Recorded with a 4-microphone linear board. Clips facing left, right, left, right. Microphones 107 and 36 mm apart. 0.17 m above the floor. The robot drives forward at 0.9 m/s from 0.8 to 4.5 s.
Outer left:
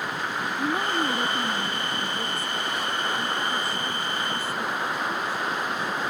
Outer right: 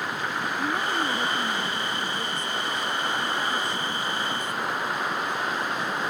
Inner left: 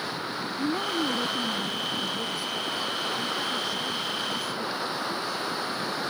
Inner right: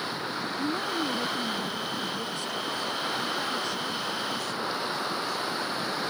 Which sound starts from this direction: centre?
A woman speaking, at 0.6 s.